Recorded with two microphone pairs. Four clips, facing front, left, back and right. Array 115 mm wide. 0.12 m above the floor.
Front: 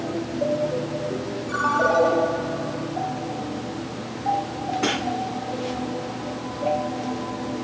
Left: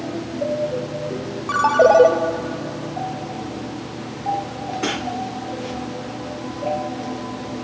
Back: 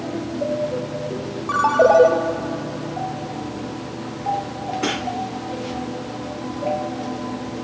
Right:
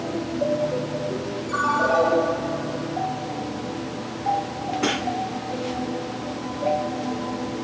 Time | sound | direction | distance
1.5 | a ringtone | 125° left | 2 m